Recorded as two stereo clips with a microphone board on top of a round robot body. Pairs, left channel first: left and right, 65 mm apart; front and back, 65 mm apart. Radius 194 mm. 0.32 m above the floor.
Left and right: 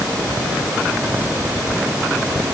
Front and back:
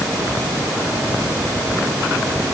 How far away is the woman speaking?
No woman speaking in this recording.